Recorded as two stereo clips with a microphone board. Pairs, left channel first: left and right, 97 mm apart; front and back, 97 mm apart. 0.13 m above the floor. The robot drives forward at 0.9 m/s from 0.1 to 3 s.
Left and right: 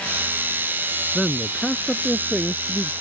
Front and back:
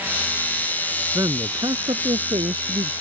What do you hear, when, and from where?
1.1 s a man speaking: 175° left; by 2.9 s straight behind